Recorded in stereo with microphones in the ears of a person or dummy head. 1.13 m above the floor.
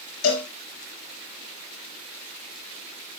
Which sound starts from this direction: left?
A cowbell, at 0.2 s.